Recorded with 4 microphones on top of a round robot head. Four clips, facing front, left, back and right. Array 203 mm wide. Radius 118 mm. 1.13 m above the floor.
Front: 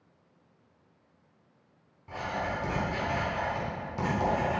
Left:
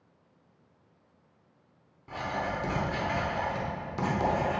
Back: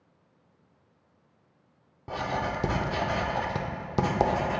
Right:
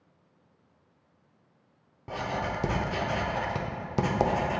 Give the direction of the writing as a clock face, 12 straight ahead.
5 o'clock.